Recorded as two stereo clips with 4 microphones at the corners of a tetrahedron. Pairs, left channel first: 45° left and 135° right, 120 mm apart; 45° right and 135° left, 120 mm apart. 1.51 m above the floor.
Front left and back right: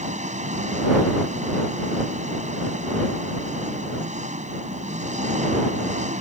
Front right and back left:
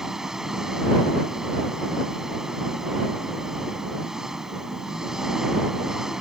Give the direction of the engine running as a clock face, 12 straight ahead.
5 o'clock.